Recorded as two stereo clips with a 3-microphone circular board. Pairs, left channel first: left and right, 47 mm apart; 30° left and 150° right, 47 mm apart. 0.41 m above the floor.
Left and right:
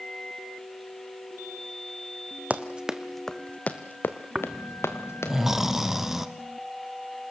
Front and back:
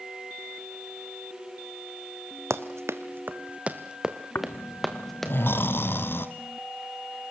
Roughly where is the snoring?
Ahead.